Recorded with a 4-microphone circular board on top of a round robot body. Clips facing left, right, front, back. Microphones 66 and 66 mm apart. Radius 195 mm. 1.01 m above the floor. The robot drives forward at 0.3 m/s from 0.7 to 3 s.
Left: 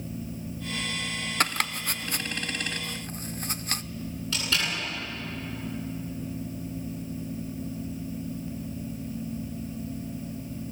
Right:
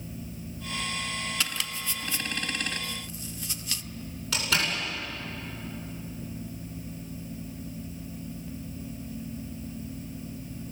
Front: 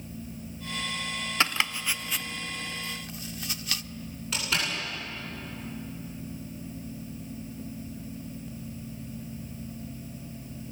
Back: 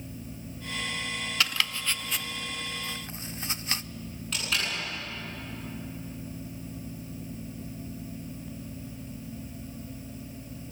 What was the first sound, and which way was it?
Chopping, 60° left.